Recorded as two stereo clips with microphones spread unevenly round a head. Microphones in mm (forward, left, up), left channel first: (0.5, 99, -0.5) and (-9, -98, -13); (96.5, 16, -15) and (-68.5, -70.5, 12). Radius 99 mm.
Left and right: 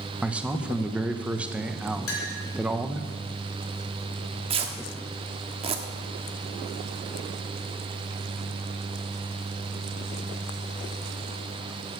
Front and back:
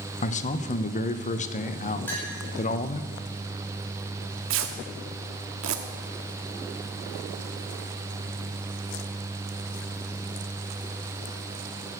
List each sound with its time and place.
0.2 s a man speaking: 10° right, 0.8 m
2.1 s a clink: 110° left, 3.5 m
4.5 s tearing paper: 155° right, 1.3 m